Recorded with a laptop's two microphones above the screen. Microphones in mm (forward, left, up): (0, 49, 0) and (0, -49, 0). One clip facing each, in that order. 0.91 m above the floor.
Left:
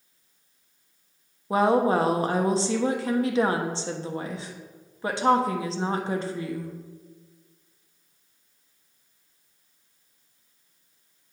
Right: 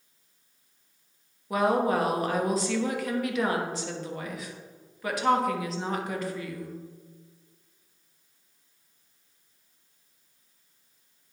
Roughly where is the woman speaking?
Left.